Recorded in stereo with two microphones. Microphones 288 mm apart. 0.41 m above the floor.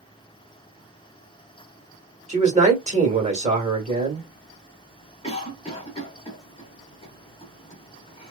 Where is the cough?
20° left (ahead or behind), 0.9 m.